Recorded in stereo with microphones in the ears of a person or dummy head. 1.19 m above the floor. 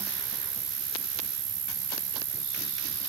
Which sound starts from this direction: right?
An insect, at 0.0 s.